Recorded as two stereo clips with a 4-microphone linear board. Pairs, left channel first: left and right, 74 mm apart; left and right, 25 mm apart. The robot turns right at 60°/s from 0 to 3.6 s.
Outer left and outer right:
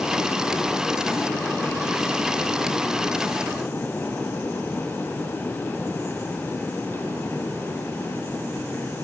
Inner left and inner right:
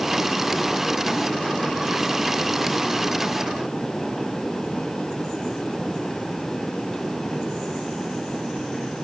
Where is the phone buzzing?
I don't hear a phone buzzing.